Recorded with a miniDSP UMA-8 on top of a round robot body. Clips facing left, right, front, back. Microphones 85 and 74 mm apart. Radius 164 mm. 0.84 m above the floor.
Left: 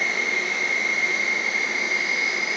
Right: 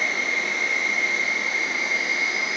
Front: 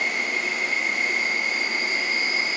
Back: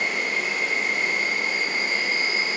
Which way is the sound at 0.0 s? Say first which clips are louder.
Even, even; 170° left.